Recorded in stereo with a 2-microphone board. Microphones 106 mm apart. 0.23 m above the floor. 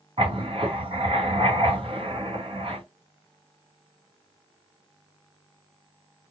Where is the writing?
55° right (ahead or behind), 2.5 m.